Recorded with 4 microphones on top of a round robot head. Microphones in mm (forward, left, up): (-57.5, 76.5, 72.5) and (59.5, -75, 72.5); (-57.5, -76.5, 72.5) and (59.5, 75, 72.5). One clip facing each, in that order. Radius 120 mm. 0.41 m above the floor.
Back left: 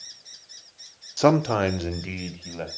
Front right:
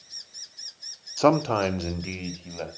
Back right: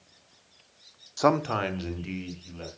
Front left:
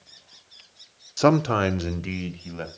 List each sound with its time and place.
1.2 s a man speaking: 60° left, 0.8 m; by 2.7 s 40° left, 2.5 m